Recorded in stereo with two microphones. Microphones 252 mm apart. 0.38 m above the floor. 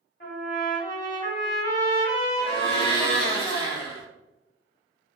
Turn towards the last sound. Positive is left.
turn(degrees=20)  # may be behind; listen again after turning